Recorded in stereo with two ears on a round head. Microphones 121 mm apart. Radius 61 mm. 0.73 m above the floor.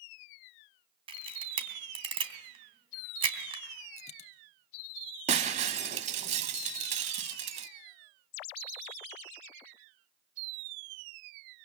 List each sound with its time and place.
1.1 s a camera shutter: 40° right (ahead or behind), 2.5 m
4.0 s a dropped coin: 55° left (ahead or behind), 1.3 m
5.3 s breaking glass: 50° right (ahead or behind), 0.9 m